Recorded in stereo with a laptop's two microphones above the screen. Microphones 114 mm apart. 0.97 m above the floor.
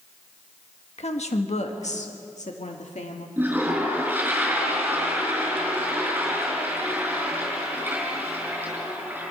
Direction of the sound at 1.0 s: 65° left (ahead or behind).